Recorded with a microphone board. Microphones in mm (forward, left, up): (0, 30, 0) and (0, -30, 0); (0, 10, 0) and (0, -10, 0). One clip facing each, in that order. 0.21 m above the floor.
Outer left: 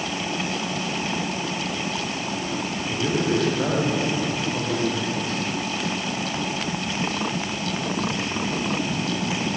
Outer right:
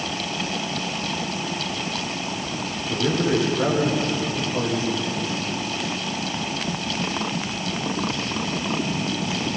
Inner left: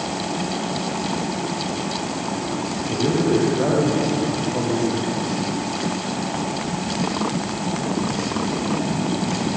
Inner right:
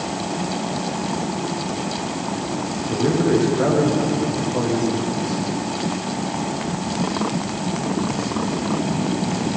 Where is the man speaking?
10° right (ahead or behind), 10 m.